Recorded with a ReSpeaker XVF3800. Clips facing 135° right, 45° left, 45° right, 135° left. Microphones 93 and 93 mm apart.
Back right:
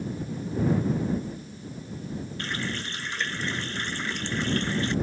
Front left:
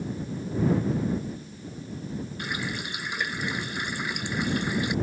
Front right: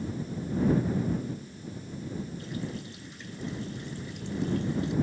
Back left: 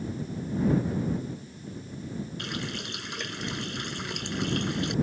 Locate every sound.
2.4 s a running tap: 125° left